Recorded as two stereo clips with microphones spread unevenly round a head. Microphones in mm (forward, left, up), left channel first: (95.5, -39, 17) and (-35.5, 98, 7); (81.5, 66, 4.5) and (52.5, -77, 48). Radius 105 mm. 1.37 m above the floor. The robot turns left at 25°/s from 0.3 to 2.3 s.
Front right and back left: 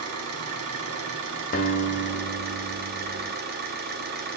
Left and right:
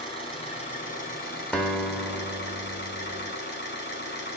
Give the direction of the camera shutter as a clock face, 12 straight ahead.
I don't hear a camera shutter.